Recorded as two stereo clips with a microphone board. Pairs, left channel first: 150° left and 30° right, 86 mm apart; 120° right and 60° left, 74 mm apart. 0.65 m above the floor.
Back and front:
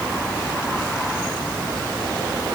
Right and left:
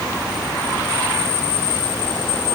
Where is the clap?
No clap in this recording.